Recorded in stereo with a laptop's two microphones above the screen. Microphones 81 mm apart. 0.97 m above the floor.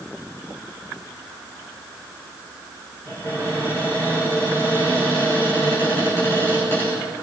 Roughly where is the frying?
I don't hear frying.